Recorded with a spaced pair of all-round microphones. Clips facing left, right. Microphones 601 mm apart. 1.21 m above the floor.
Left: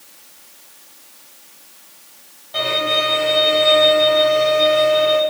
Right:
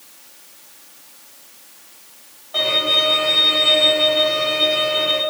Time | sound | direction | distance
2.5 | a violin | 40° left (ahead or behind) | 1.5 m